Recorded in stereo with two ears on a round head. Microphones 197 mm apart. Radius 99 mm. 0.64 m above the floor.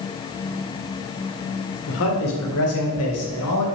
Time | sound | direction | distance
1.9 | a man speaking | 60° left (ahead or behind) | 2 m